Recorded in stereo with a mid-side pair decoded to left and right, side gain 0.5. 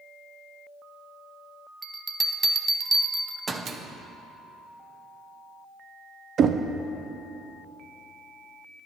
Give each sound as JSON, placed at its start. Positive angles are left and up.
{"t": 1.8, "sound": "a bell", "azimuth_deg": -30, "distance_m": 0.6}
{"t": 3.6, "sound": "a microwave", "azimuth_deg": -50, "distance_m": 0.8}
{"t": 6.4, "sound": "knocking", "azimuth_deg": -55, "distance_m": 0.5}